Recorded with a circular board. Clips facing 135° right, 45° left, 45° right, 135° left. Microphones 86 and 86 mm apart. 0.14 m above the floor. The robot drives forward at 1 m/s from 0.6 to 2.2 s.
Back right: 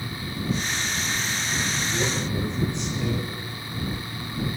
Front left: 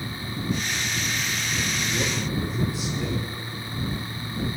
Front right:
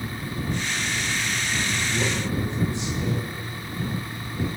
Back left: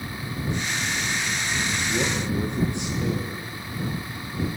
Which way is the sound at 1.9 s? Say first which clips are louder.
Back right 1 dB, back left 1 dB; 125° left.